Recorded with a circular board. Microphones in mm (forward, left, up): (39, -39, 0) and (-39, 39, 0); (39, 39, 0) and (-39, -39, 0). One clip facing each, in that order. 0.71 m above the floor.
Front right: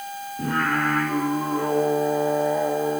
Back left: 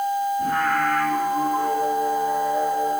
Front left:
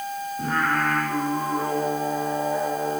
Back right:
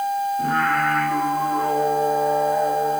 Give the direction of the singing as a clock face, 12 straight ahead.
1 o'clock.